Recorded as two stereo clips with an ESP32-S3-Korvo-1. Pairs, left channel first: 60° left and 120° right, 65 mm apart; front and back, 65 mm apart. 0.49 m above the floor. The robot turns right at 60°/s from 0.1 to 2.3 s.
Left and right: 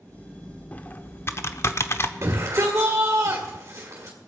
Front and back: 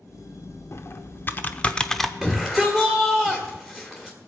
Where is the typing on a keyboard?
5° left, 0.7 m; by 2.1 s 90° left, 0.7 m.